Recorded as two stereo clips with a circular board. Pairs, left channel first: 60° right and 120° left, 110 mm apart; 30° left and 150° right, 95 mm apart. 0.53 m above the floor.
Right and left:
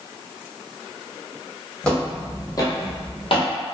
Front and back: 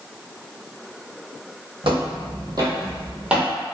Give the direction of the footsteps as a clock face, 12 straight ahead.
5 o'clock.